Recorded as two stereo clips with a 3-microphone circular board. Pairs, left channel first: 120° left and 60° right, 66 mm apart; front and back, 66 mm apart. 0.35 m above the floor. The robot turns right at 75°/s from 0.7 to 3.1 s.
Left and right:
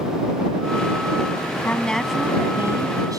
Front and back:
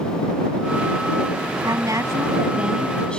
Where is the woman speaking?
Straight behind; by 3.2 s 75° right.